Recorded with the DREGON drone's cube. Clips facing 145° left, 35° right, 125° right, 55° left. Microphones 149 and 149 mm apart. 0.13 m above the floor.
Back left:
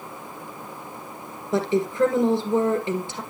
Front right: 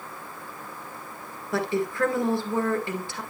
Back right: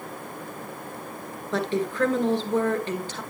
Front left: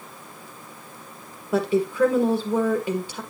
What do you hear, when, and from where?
1.5 s a woman speaking: 120° left, 1.5 m